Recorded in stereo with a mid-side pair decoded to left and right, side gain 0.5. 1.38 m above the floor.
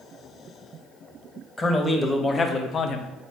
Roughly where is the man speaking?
Ahead left.